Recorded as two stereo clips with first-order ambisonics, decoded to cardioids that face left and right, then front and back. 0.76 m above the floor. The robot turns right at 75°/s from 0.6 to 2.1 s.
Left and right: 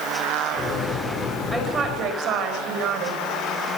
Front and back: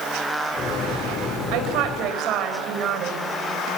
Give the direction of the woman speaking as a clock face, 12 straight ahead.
6 o'clock.